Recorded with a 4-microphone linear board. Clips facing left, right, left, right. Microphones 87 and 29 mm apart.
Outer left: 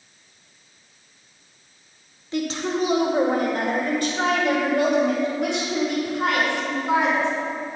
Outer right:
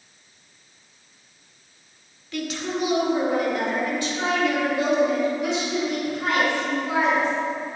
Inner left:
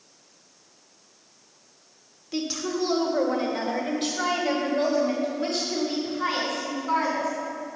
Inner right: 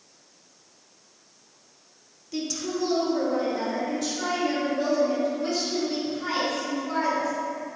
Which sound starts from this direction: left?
A woman speaking, at 2.3 s.